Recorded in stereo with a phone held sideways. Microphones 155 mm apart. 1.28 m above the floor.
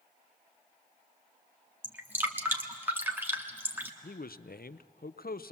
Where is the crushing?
No crushing in this recording.